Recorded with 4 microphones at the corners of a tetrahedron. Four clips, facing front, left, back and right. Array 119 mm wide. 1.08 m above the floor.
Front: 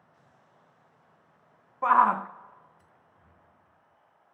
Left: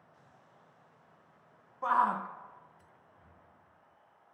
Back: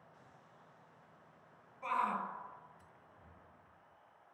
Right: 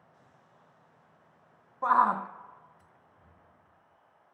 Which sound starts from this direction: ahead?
A shout, at 1.8 s.